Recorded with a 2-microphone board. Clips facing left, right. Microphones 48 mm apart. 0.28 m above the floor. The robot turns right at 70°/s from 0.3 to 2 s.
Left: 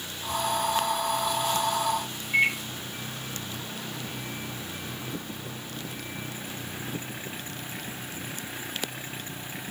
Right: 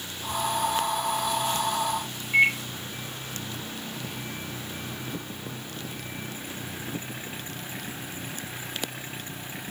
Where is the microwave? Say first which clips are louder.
Right 3 dB; 10° right (ahead or behind), 1.3 m.